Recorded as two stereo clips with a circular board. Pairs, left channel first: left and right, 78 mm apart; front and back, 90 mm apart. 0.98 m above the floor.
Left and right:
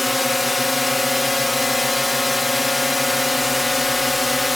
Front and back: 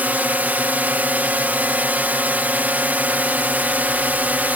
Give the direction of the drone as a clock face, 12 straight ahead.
6 o'clock.